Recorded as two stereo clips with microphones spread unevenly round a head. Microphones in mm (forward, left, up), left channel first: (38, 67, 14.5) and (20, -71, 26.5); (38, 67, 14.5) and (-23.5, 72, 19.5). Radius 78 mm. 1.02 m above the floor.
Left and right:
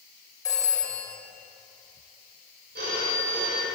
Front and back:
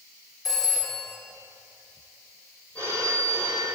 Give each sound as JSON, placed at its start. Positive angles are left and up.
{"t": 0.5, "sound": "a phone ringing", "azimuth_deg": 15, "distance_m": 2.5}
{"t": 2.8, "sound": "a phone ringing", "azimuth_deg": -85, "distance_m": 3.0}